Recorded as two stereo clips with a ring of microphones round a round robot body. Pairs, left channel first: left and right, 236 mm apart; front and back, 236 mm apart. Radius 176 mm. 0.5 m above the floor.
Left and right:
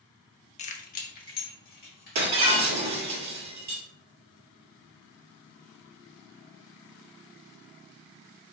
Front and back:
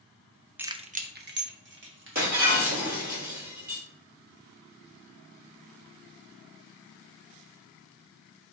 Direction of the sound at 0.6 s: 105° left.